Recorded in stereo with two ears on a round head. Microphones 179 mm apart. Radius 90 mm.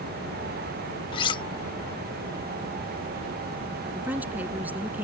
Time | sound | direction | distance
1.1 | cutlery clinking | 25° left (ahead or behind) | ?
4.0 | a woman speaking | 10° right (ahead or behind) | ?